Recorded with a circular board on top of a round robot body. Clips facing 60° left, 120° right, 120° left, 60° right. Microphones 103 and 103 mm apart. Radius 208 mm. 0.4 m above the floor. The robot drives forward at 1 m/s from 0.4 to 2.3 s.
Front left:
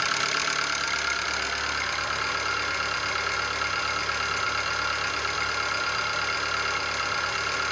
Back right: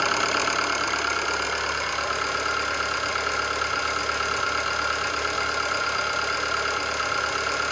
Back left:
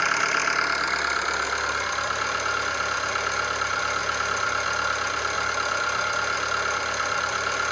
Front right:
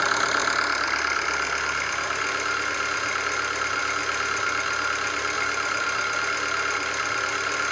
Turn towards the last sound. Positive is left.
turn(degrees=-170)